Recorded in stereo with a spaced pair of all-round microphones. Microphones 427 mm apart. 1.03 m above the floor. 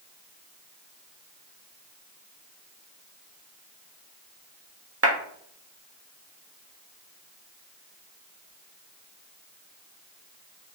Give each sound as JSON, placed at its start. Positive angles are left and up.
{"t": 5.0, "sound": "a clap", "side_deg": -30, "distance_m": 1.4}